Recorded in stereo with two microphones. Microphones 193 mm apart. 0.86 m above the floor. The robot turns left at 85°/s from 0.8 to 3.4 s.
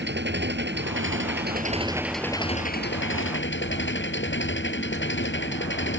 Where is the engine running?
65° right; by 6.0 s 75° left.